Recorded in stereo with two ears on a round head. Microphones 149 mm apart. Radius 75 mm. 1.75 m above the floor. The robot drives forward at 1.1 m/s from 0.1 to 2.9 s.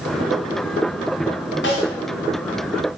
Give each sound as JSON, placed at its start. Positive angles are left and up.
{"t": 1.6, "sound": "a snare drum", "side_deg": 70, "distance_m": 4.5}